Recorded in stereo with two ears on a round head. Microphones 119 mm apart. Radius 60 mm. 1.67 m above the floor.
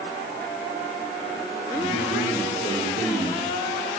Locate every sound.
1.7 s a man speaking: 5° right (ahead or behind), 5 m